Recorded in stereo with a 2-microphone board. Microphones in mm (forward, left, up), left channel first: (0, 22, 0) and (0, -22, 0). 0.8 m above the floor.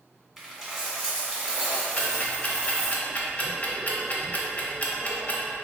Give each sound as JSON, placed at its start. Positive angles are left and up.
{"t": 0.4, "sound": "a dropped coin", "side_deg": -10, "distance_m": 1.0}
{"t": 2.0, "sound": "ticking", "side_deg": 35, "distance_m": 0.7}